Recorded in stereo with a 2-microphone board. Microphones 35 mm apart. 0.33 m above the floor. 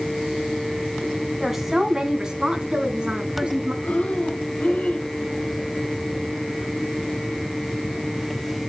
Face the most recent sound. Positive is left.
turn(degrees=45)  # may be behind; listen again after turning